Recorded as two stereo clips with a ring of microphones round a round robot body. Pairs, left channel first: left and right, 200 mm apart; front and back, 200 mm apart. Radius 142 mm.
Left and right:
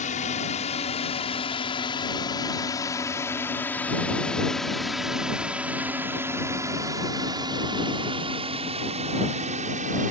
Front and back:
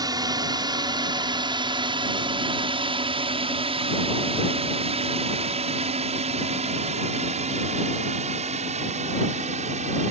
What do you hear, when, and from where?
0.0 s a drone: 120° left; by 10.1 s 130° right